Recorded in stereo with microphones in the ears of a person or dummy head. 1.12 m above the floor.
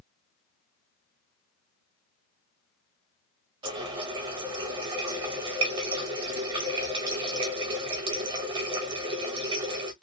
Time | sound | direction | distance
3.6 | a running tap | 25° right (ahead or behind) | 0.6 m